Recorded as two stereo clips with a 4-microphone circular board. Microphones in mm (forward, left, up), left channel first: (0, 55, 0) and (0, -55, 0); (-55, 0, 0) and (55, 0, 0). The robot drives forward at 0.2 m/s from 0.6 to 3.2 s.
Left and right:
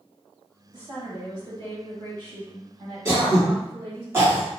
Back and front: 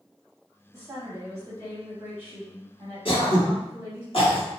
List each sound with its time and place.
0.7 s a woman speaking: 55° right, 1.7 m; by 4.0 s 75° right, 1.5 m
3.0 s throat clearing: 155° right, 1.0 m